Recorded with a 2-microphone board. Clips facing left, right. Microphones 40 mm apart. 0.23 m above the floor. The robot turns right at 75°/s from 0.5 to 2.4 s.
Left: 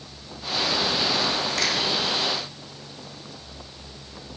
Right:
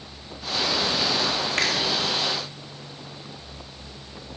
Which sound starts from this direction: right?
A finger snap, at 1.6 s.